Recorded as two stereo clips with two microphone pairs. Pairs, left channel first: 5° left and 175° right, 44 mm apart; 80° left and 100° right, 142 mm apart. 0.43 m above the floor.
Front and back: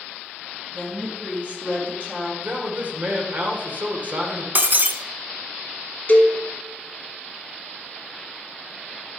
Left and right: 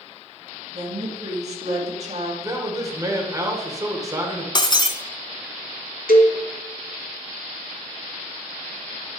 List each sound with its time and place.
0.7 s a woman speaking: 125° right, 3 m
2.4 s a man speaking: 150° right, 1.4 m
4.5 s breaking glass: 140° left, 0.8 m
6.1 s a cowbell: 65° left, 1.1 m